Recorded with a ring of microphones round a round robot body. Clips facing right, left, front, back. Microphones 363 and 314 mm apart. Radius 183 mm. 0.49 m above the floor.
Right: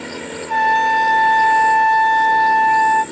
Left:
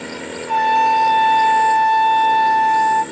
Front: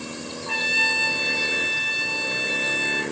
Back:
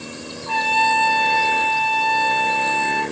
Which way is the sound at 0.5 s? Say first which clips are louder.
Left 2 dB, back 6 dB; 5° right.